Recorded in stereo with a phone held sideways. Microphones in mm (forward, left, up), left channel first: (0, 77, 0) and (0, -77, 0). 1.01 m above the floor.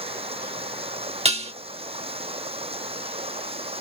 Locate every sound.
0.0 s running water: 40° right (ahead or behind)
1.2 s dishes clattering: 40° right (ahead or behind)